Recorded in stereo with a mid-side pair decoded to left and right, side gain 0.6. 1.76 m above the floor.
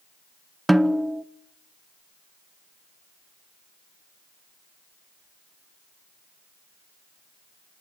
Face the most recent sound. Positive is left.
turn(degrees=-5)